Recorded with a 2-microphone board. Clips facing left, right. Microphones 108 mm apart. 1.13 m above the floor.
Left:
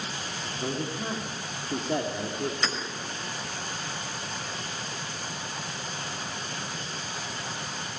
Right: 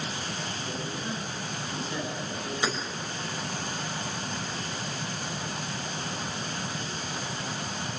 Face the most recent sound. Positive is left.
turn(degrees=-15)  # may be behind; listen again after turning